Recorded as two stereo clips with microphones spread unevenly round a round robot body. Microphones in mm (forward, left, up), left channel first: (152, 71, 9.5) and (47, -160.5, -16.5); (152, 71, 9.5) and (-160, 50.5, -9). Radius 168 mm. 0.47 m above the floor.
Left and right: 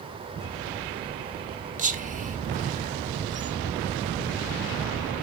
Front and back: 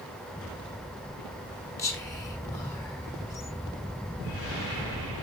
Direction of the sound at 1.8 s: 80° right.